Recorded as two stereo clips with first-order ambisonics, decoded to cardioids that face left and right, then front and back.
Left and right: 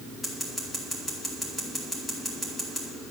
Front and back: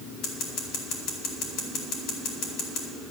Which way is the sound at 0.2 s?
10° left.